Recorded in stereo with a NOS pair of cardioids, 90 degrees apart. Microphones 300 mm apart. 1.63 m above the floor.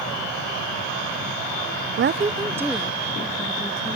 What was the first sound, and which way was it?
A woman speaking, 45° right.